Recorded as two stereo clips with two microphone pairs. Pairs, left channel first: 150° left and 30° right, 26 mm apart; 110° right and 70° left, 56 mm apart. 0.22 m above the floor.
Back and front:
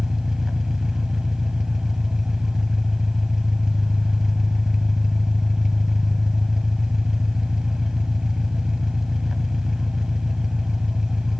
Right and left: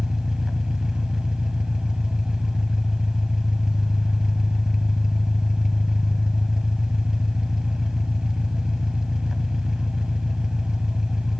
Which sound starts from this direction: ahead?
An engine running, at 0.0 s.